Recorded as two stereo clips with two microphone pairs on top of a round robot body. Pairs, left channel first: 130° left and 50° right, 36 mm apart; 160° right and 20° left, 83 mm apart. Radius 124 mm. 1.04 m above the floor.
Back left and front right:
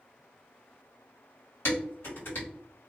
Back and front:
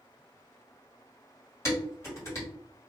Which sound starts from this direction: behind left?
Dishes clattering, at 1.6 s.